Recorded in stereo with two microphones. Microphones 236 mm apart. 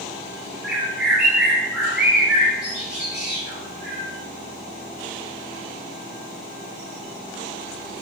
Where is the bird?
5° right (ahead or behind), 5 m.